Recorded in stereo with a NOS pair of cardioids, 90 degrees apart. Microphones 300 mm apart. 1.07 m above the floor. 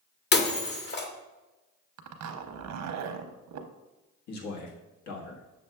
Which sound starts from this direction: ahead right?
A zipper, at 2.0 s.